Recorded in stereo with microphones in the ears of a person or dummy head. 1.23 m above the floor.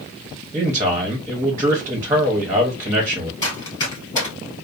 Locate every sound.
0.5 s a man speaking: 15° right (ahead or behind), 0.7 m
3.4 s running footsteps: 25° left (ahead or behind), 1.8 m